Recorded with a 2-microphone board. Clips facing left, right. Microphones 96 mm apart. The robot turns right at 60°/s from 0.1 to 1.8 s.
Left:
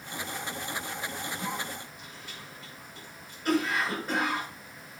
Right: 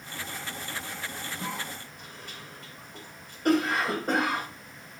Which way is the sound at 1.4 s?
75° right (ahead or behind).